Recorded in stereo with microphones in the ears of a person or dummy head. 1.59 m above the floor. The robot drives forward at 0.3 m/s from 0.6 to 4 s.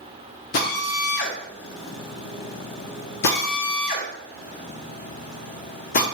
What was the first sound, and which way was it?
A drill, 45° left (ahead or behind).